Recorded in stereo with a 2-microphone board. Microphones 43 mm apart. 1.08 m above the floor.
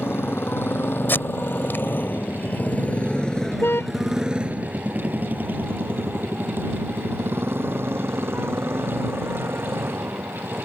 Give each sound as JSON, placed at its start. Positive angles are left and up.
{"t": 0.0, "sound": "a motorcycle", "side_deg": 70}
{"t": 1.1, "sound": "tape being pulled", "side_deg": 60}
{"t": 3.6, "sound": "a car horn", "side_deg": 70}